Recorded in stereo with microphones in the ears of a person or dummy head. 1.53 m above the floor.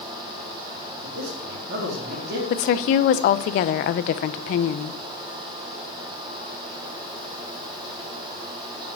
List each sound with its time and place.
1.0 s a man speaking: 60° right (ahead or behind), 3.5 m
2.5 s a woman speaking: 50° left (ahead or behind), 0.6 m